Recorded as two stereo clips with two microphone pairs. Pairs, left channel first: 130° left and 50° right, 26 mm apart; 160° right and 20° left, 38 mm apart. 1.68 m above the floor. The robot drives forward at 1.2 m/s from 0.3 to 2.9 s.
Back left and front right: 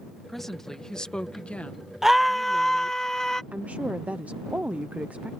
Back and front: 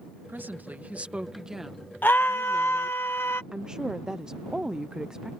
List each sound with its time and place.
0.3 s a woman speaking: 50° left; by 3.0 s 135° left
2.0 s a scream: 125° right; by 3.4 s 160° right
3.5 s a woman speaking: 50° right